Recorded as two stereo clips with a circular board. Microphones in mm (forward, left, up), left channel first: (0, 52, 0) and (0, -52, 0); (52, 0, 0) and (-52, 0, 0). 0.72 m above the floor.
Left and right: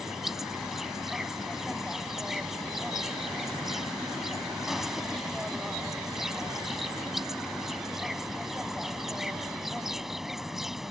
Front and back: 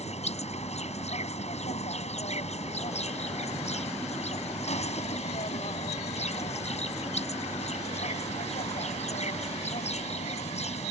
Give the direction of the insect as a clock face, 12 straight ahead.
12 o'clock.